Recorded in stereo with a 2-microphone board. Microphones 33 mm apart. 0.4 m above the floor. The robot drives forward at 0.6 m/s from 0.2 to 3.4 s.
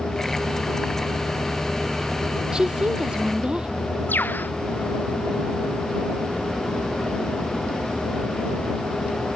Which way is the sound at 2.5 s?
25° right (ahead or behind).